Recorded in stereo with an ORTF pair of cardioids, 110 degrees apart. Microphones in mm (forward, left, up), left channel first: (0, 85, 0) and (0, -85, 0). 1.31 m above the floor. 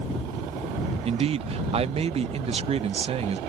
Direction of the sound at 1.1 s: 35° right.